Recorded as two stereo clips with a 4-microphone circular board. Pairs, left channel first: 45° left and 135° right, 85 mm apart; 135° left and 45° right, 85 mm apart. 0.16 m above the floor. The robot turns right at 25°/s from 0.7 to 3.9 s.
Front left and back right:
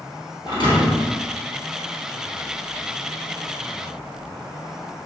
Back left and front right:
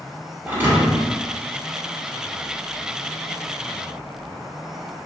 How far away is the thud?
About 1.4 m.